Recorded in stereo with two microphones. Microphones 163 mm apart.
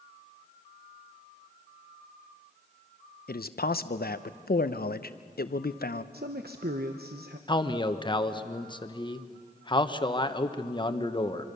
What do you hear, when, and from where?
3.3 s a man speaking: 70° left (ahead or behind), 0.8 m
6.1 s a man speaking: 70° right (ahead or behind), 0.9 m
7.5 s a man speaking: 30° left (ahead or behind), 1.1 m